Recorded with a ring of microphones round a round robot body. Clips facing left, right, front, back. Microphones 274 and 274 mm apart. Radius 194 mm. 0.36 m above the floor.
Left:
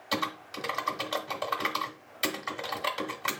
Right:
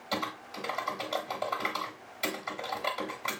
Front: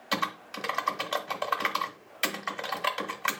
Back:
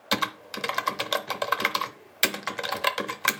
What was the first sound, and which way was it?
Typing on a keyboard, 160° left.